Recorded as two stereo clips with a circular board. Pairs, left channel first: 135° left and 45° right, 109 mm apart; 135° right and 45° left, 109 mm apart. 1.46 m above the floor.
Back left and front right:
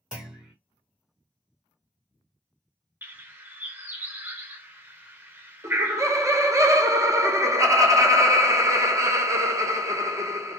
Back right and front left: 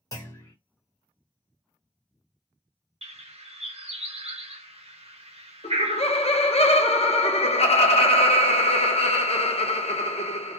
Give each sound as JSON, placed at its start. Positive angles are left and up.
{"t": 0.1, "sound": "a clunk", "azimuth_deg": -125, "distance_m": 1.5}
{"t": 3.0, "sound": "a bird", "azimuth_deg": 25, "distance_m": 0.6}
{"t": 5.6, "sound": "laughter", "azimuth_deg": -110, "distance_m": 0.8}